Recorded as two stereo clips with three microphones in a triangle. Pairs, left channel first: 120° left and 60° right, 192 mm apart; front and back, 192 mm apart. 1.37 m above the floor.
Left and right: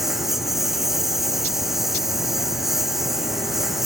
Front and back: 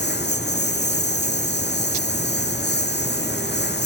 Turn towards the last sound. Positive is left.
turn(degrees=30)